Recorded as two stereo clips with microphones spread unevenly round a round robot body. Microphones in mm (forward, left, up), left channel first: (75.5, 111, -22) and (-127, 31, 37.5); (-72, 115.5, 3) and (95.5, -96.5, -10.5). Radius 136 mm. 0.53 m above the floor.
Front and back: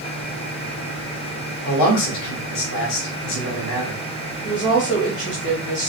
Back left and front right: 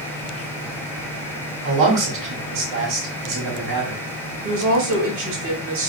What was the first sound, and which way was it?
A man speaking, straight ahead.